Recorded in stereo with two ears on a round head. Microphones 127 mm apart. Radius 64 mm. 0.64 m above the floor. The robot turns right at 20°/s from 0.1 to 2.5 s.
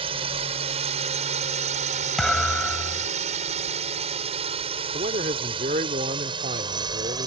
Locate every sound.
0.0 s a drone: 40° right (ahead or behind); by 7.3 s 30° right (ahead or behind)
2.2 s a thud: centre (ahead or behind); by 3.1 s 10° left (ahead or behind)
4.9 s a man speaking: 55° right (ahead or behind)